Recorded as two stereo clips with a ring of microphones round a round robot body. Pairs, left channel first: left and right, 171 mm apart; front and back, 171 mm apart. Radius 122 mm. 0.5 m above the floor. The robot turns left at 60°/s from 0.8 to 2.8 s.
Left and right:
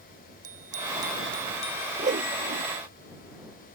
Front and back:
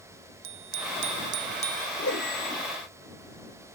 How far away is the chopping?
No chopping in this recording.